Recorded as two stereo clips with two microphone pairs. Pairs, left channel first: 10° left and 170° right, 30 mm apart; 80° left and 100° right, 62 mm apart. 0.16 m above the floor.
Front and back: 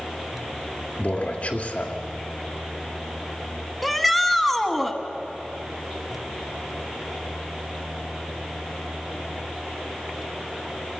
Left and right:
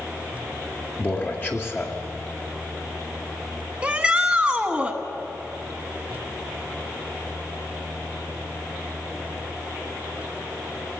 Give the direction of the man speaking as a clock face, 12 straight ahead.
11 o'clock.